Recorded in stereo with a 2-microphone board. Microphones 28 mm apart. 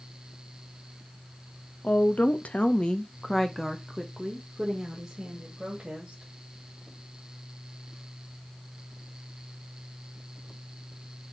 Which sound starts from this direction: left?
A woman speaking, at 1.8 s.